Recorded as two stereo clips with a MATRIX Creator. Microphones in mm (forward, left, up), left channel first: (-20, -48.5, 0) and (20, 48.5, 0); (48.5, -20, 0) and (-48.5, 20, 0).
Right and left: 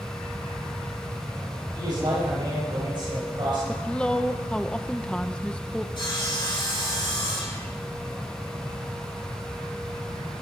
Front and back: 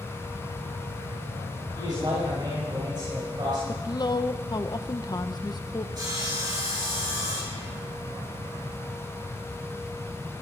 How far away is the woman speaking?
About 0.8 m.